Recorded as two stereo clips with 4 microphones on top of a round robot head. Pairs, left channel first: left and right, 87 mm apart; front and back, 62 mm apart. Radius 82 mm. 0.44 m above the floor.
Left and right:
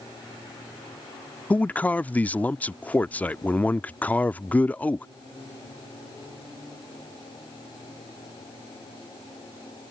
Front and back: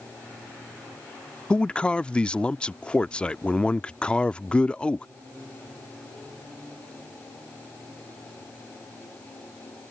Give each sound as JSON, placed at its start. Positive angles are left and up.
{"t": 1.5, "sound": "a man speaking", "azimuth_deg": 45}